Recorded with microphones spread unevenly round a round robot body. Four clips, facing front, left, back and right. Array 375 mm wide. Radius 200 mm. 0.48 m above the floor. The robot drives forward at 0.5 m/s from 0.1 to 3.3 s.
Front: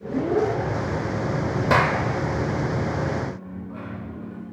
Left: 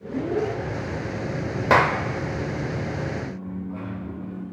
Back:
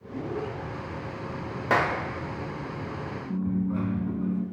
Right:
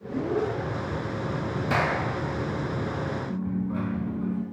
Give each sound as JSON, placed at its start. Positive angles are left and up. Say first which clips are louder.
{"t": 1.7, "sound": "a clap", "louder": "left 8 dB, front 4 dB", "azimuth_deg": 70, "distance_m": 2.0}
{"t": 3.3, "sound": "a dropped coin", "louder": "right 4 dB, back 7 dB", "azimuth_deg": -145, "distance_m": 2.5}